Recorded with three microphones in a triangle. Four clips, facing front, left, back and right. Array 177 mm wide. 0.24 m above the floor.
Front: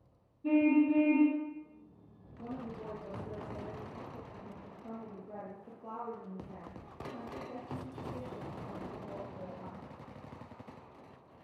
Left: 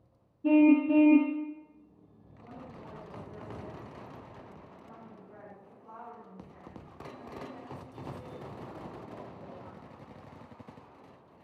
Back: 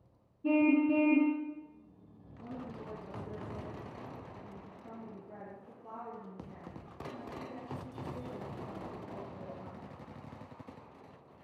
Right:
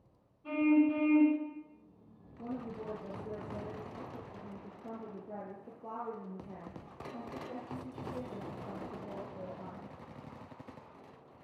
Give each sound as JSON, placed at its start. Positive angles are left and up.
{"t": 0.4, "sound": "a car horn", "azimuth_deg": 95, "distance_m": 4.0}
{"t": 2.4, "sound": "a woman speaking", "azimuth_deg": -70, "distance_m": 6.5}